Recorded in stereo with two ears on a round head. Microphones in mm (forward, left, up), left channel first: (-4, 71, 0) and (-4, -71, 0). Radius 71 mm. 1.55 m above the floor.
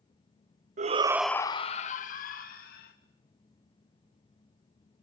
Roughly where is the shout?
Right.